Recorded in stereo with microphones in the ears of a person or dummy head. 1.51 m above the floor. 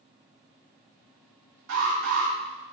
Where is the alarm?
65° right (ahead or behind), 2.5 m.